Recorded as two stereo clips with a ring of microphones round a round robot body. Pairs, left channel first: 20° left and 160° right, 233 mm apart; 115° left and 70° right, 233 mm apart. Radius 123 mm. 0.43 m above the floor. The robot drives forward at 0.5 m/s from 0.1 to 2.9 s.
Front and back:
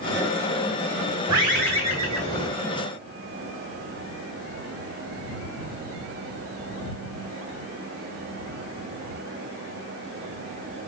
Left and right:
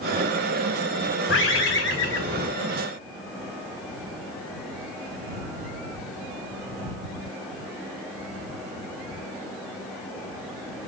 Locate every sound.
1.3 s a bird: 135° left, 2 m; by 2.5 s 145° left, 2.5 m